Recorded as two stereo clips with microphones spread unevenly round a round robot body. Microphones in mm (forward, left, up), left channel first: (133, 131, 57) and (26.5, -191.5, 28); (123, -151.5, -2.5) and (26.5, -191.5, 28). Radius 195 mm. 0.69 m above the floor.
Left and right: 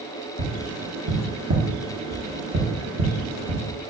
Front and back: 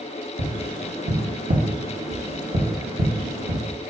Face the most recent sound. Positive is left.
turn(degrees=-155)